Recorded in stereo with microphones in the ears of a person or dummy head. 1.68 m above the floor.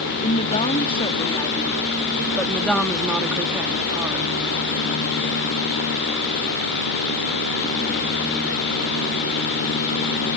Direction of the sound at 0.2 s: 30° left (ahead or behind).